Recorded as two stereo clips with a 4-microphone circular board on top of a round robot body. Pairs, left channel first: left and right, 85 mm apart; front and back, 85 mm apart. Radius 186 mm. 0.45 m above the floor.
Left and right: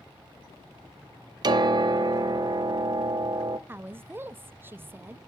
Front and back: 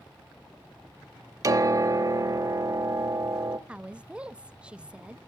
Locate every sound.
1.4 s a piano: 130° right, 0.7 m
3.7 s a woman speaking: 120° right, 0.8 m